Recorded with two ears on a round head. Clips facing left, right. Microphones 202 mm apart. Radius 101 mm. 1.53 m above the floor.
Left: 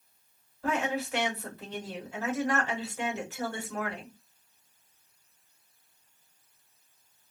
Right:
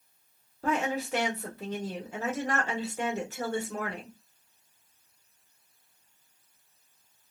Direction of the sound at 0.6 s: 35° right (ahead or behind).